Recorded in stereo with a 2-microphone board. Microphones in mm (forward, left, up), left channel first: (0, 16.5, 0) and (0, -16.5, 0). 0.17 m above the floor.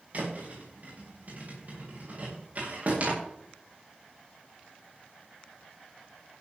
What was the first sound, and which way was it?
A thud, 45° right (ahead or behind).